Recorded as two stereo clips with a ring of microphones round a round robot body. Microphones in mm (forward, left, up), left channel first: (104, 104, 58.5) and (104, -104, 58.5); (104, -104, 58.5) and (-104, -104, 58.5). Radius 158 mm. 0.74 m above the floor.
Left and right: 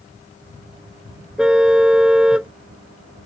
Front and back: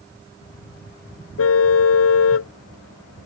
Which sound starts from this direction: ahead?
A car horn, at 1.4 s.